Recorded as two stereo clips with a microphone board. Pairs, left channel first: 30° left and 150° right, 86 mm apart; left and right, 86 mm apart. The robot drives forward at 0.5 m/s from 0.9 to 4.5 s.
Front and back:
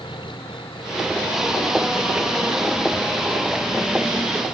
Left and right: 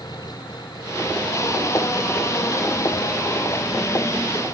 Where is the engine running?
50° left; by 4.5 s 60° left.